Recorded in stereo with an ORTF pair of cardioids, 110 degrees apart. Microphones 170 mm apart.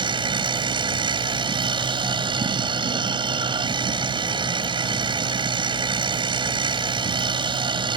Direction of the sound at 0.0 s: 30° right.